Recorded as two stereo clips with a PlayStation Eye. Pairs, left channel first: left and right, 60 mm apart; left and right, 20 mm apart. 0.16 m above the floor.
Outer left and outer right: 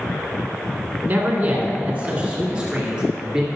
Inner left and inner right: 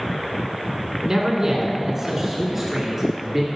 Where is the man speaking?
30° right (ahead or behind), 1.5 m; by 3.5 s 10° right (ahead or behind), 2.5 m.